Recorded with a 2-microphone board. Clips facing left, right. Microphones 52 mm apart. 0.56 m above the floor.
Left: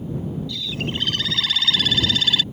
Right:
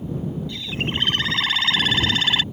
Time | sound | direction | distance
0.5 | a bird | 35° right (ahead or behind) | ?